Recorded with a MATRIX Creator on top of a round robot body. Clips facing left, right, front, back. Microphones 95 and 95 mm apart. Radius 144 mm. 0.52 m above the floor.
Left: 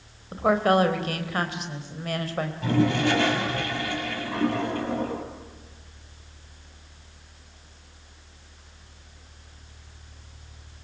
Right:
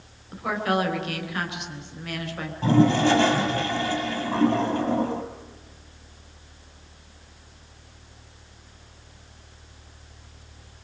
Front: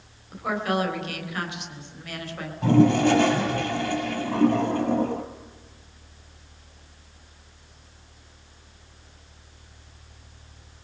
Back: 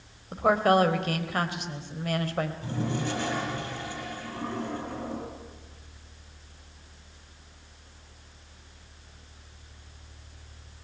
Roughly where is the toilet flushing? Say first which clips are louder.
Right 5 dB, front 13 dB; ahead right.